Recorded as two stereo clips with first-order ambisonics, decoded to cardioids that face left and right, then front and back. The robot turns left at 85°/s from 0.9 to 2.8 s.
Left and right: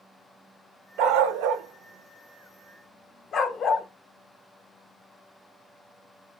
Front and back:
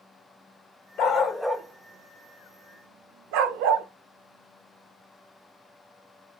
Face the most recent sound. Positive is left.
turn(degrees=155)